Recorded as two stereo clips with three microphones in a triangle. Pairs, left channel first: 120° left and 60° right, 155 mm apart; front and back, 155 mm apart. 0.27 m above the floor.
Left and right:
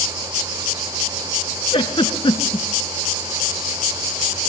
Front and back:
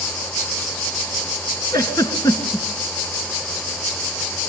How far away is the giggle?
About 3 m.